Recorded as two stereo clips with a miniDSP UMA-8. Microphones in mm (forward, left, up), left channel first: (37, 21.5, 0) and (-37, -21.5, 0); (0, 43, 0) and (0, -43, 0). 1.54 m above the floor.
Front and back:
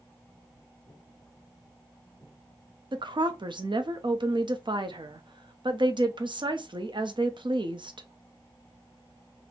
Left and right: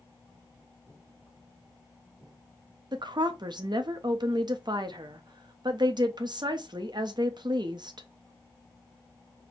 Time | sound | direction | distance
2.9 | a woman speaking | 125° right | 0.6 m